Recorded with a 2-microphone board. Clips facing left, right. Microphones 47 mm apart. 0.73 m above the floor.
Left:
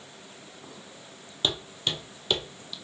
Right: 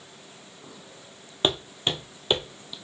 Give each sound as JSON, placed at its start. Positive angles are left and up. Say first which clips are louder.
{"t": 1.4, "sound": "footsteps", "louder": "right 4 dB", "side_deg": -35, "distance_m": 1.0}